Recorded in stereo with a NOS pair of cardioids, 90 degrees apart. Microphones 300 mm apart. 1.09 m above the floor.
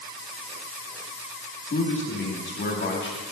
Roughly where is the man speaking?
Ahead left.